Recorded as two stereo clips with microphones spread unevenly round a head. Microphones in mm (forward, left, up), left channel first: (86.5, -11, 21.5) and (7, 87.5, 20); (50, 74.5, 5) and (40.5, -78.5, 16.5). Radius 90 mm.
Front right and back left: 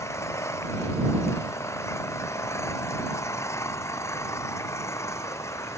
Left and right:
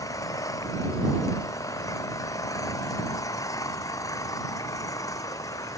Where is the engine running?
15° left.